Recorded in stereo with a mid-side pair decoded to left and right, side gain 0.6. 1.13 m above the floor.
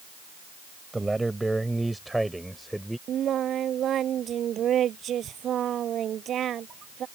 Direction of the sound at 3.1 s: 45° right.